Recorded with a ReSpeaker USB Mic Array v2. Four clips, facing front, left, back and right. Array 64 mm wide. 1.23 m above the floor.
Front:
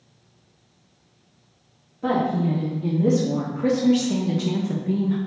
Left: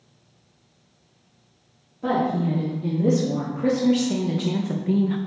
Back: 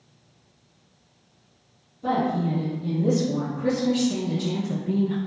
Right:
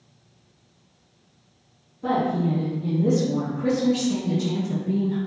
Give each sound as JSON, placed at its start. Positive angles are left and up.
{"t": 2.0, "sound": "a woman speaking", "azimuth_deg": 40, "distance_m": 3.0}